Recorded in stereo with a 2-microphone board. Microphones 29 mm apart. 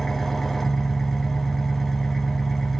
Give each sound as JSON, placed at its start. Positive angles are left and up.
{"t": 0.0, "sound": "an engine running", "side_deg": 5, "distance_m": 0.8}